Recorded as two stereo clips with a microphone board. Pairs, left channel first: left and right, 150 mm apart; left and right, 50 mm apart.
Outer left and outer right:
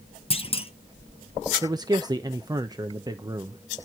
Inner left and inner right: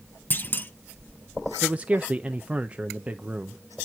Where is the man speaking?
25° right (ahead or behind), 0.6 m.